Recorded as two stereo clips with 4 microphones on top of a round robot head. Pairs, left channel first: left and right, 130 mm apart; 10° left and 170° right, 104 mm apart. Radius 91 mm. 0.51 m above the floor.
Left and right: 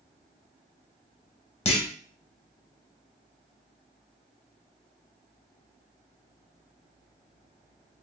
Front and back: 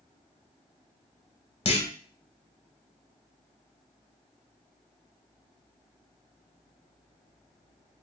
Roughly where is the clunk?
Ahead left.